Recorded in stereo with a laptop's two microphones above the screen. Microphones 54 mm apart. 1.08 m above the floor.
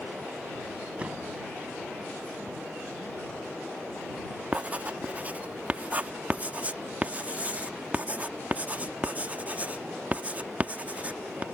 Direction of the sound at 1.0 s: 20° right (ahead or behind).